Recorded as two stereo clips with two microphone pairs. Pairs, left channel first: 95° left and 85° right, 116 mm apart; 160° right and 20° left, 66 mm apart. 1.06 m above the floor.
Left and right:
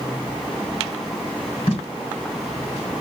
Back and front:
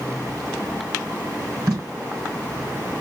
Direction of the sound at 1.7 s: 50° left.